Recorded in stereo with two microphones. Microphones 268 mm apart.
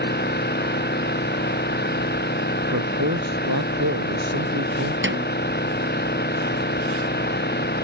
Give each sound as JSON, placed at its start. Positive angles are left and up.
{"t": 0.0, "sound": "an engine running", "side_deg": 40}
{"t": 2.7, "sound": "a man speaking", "side_deg": -85}
{"t": 5.0, "sound": "a snare drum", "side_deg": -45}